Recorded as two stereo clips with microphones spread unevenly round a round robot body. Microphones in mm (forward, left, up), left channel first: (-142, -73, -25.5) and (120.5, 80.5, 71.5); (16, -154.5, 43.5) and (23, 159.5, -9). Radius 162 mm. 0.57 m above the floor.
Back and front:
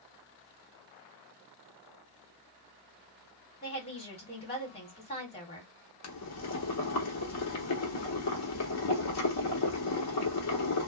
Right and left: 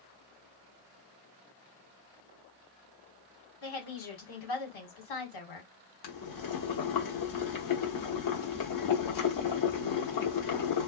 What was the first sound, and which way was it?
A woman speaking, 95° right.